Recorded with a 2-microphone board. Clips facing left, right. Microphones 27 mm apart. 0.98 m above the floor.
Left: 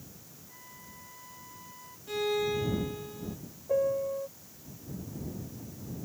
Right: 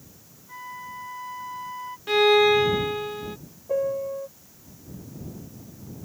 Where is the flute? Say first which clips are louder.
Right 16 dB; 45° right (ahead or behind).